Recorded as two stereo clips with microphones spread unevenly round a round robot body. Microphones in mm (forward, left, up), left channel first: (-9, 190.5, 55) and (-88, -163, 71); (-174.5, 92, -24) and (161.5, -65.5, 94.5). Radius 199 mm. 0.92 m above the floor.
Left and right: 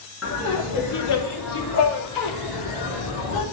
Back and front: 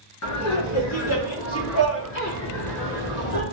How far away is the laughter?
About 1.9 m.